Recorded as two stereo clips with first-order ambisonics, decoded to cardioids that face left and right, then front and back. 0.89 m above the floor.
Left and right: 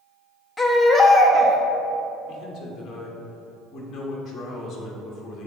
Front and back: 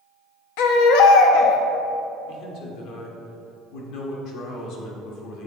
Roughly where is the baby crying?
Ahead.